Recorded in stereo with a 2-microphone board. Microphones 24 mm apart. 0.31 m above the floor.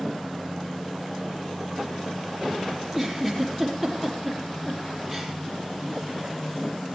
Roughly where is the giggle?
Centre.